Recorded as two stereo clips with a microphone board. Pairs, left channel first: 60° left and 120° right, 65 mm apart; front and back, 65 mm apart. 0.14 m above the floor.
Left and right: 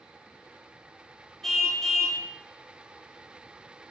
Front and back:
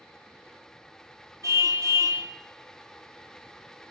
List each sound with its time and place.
1.4 s a car horn: 145° left, 3 m